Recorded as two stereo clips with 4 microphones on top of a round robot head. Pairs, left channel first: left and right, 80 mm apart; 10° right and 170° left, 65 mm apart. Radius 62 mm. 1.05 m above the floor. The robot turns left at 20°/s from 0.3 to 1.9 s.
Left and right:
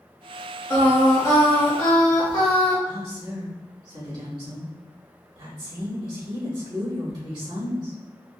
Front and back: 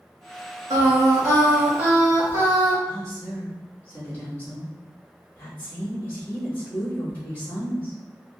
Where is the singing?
145° left, 1.2 m; by 2.8 s 120° left, 1.2 m.